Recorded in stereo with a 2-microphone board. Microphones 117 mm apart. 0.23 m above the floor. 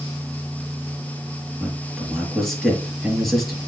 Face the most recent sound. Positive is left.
turn(degrees=0)  # may be behind; listen again after turning